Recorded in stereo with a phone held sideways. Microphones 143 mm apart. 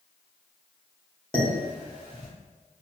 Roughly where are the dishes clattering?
Centre.